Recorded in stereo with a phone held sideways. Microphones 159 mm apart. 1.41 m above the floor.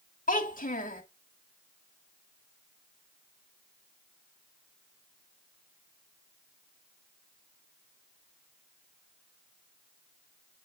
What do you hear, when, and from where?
0.3 s a child speaking: 60° left (ahead or behind), 1.5 m